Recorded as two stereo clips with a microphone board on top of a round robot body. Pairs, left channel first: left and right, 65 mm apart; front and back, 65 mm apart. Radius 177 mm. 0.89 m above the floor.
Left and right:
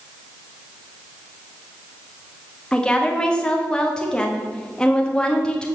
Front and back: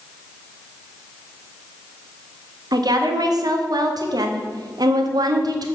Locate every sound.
2.7 s a woman speaking: 170° left, 1.4 m